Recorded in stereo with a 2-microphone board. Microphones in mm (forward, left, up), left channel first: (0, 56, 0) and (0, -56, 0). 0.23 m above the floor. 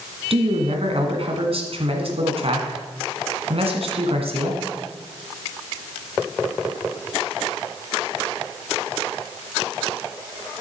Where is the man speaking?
60° right (ahead or behind), 1.8 m.